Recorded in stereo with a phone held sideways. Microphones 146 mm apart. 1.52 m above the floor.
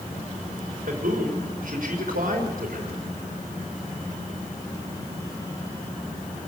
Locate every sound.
0.9 s a man speaking: 70° right (ahead or behind), 5 m